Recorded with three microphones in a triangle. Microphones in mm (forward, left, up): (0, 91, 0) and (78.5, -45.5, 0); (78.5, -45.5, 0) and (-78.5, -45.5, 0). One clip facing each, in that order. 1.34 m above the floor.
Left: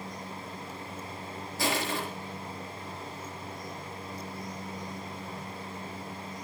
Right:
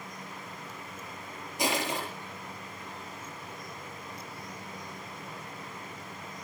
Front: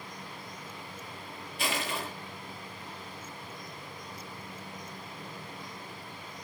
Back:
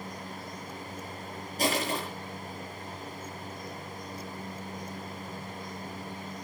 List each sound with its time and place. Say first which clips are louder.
1.6 s crushing: even, back 5 dB; 130° right, 8 m